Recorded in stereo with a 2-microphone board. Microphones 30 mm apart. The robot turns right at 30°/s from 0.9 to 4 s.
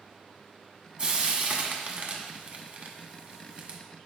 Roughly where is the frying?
Right.